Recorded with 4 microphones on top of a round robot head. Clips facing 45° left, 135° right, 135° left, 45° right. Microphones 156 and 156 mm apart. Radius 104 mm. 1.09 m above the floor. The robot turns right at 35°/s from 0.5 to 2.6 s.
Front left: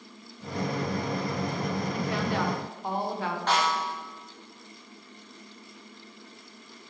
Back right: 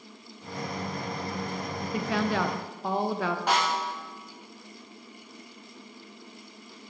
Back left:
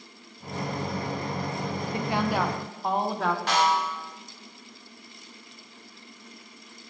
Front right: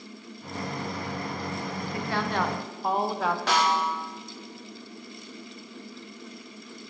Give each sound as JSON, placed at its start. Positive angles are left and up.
{"t": 1.9, "sound": "a woman speaking", "azimuth_deg": -155, "distance_m": 0.7}
{"t": 3.5, "sound": "a snare drum", "azimuth_deg": -55, "distance_m": 1.0}